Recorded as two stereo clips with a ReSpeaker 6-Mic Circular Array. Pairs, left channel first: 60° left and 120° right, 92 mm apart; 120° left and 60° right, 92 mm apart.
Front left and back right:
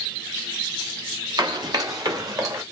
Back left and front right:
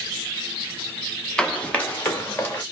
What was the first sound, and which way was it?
Running footsteps, 160° right.